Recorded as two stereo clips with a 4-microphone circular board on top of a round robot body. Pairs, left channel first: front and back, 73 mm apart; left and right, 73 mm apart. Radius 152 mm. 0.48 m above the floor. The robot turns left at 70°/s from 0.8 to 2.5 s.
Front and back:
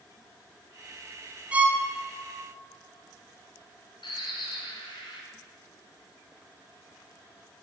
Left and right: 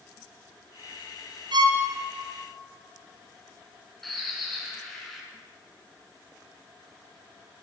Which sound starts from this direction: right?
A violin, at 1.5 s.